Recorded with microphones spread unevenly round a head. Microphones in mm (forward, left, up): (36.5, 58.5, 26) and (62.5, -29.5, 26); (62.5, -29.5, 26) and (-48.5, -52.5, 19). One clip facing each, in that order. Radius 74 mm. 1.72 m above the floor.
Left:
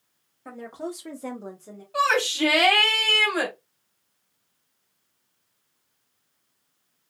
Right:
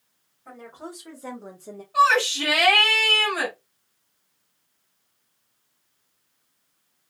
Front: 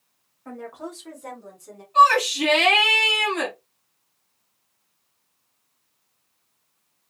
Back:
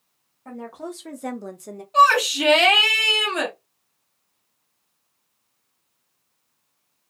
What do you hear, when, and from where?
0.5 s a woman speaking: 120° left, 1.2 m; by 1.8 s 130° right, 0.7 m
1.9 s a shout: 160° left, 1.2 m